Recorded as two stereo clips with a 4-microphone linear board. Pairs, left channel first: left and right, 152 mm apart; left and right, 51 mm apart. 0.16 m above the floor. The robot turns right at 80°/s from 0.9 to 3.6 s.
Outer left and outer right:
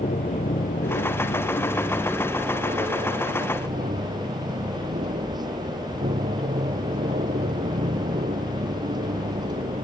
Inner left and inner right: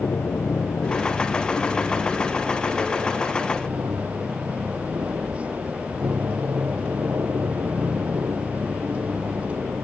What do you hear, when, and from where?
0.0 s an aircraft: 80° left; by 9.8 s 65° right